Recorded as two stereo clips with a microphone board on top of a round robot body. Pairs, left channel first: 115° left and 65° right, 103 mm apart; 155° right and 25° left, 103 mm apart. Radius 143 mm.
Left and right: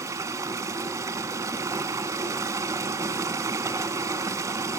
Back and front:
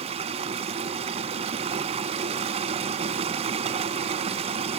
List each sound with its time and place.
0.0 s running water: 5° right, 0.9 m